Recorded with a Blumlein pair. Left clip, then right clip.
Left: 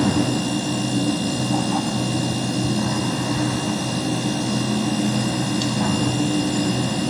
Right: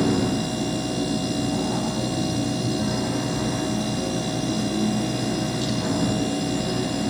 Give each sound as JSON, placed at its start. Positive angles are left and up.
{"t": 0.0, "sound": "a machine running", "azimuth_deg": 65, "distance_m": 5.5}